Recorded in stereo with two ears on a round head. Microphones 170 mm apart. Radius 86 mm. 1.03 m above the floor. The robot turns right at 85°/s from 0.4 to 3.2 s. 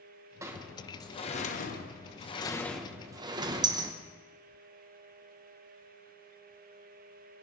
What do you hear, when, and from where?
0.4 s a sliding door: 15° right (ahead or behind), 1.0 m; by 3.9 s 20° right (ahead or behind), 1.0 m